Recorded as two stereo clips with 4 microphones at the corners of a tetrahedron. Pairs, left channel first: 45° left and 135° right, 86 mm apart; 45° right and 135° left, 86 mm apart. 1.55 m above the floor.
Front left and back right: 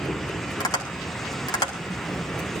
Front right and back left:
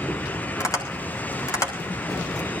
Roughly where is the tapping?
Ahead.